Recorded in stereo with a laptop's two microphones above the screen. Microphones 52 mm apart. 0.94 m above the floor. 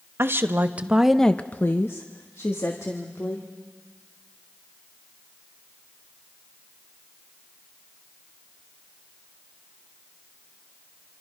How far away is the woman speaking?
About 1.1 m.